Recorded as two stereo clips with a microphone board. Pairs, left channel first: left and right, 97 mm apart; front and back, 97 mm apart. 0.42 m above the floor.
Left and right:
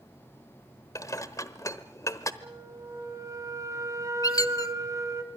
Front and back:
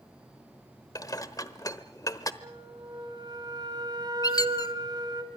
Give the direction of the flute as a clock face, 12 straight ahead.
5 o'clock.